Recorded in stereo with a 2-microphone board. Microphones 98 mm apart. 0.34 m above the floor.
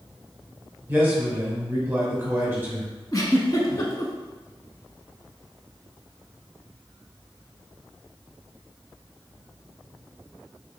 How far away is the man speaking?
About 1.2 m.